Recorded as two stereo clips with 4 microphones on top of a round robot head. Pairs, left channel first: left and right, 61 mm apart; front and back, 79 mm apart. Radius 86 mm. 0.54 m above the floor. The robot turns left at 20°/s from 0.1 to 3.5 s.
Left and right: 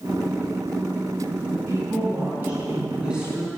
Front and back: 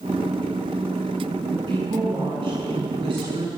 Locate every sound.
1.5 s a woman speaking: 140° right, 8 m; by 3.5 s straight behind, 8 m